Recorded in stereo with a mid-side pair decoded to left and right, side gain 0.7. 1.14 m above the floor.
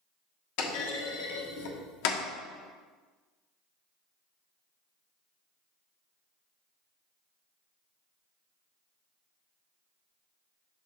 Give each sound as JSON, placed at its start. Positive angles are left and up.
{"t": 0.6, "sound": "a clunk", "azimuth_deg": 70, "distance_m": 1.4}